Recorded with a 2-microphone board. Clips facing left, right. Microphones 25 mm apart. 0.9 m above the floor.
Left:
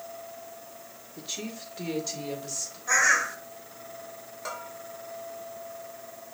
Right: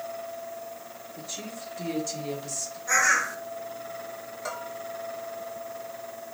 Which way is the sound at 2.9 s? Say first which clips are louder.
Even; 10° left (ahead or behind).